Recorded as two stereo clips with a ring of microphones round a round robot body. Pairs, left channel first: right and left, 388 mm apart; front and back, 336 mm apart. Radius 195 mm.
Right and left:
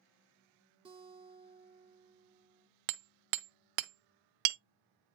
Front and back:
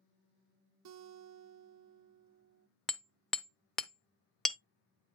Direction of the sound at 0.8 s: 165° left.